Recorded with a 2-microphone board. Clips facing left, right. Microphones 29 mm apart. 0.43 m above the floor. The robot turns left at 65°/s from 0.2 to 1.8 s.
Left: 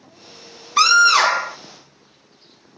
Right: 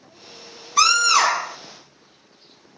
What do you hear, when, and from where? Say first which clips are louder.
0.8 s a scream: left 4 dB; 120° left, 1.8 m; by 1.6 s 65° left, 1.8 m